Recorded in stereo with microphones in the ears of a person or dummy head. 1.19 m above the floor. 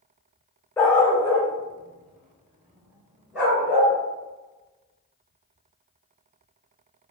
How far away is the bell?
No bell in this recording.